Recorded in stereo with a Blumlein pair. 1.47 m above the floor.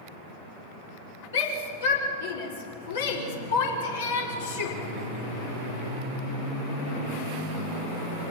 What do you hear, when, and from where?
1.3 s a shout: 65° left, 5.5 m